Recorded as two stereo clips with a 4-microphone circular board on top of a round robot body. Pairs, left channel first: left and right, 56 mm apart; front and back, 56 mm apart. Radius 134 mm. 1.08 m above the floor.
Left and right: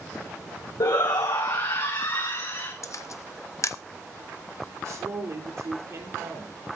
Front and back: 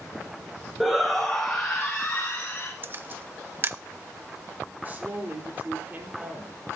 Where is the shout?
90° left, 1.4 m; by 2.7 s 65° left, 2.5 m.